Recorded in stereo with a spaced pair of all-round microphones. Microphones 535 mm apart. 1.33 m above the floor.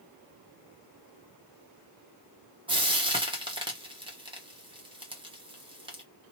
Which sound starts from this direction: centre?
Frying, at 2.7 s.